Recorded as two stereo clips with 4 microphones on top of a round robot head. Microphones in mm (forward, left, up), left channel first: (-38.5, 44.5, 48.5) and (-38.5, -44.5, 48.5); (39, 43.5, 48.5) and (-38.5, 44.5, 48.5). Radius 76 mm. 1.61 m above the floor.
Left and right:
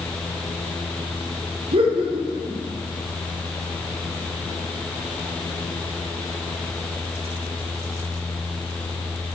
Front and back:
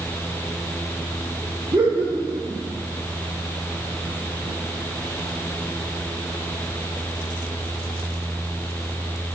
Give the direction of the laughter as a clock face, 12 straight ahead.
4 o'clock.